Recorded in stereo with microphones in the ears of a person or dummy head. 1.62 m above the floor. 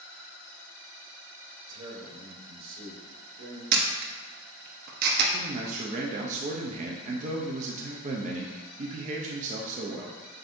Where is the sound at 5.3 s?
40° right (ahead or behind), 0.6 m.